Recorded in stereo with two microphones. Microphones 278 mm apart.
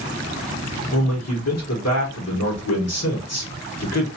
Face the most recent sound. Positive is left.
turn(degrees=65)  # may be behind; listen again after turning